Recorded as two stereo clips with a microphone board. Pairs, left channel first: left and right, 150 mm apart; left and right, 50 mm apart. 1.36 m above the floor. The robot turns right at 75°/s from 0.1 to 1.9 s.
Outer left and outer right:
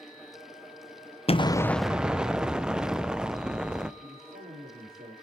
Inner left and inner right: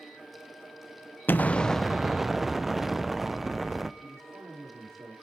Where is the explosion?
140° left, 0.6 m; by 3.9 s 175° right, 0.6 m.